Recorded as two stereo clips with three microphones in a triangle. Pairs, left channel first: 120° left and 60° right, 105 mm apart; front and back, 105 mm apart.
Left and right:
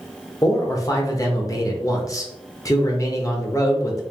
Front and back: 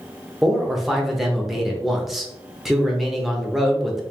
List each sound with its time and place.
0.4 s a man speaking: 95° left, 0.9 m